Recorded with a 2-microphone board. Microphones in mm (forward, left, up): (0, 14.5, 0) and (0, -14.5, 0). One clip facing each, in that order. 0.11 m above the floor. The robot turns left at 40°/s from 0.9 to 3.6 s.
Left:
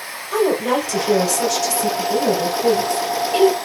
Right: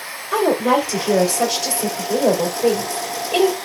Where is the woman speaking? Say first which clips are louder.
Right 1 dB; 50° right, 2 m; by 3.5 s 160° right, 2 m.